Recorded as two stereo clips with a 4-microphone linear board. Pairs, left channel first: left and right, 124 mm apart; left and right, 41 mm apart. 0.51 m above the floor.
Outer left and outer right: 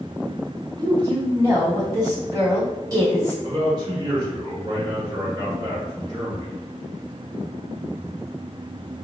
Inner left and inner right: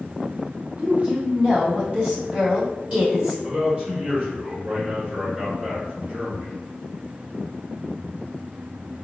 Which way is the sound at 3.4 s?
35° right (ahead or behind).